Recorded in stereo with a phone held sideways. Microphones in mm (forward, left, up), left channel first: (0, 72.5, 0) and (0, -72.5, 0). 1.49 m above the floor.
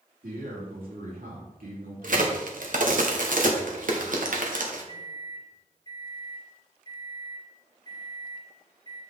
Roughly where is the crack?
Right.